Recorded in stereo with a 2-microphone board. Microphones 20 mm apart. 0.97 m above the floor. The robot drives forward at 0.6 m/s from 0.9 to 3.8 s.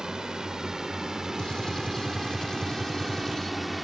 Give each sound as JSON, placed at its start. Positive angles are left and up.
{"t": 0.0, "sound": "a drone", "side_deg": -40}
{"t": 1.4, "sound": "a gunshot", "side_deg": 35}